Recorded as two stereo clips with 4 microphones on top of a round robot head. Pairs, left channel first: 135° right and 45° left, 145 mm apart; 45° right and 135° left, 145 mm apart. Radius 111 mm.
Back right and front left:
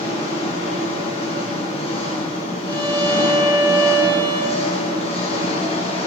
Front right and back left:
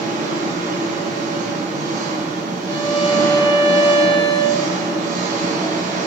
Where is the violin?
10° right, 2.5 m.